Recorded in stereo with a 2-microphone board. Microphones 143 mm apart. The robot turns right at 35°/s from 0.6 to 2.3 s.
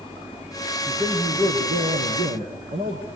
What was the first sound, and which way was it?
A man speaking, 155° right.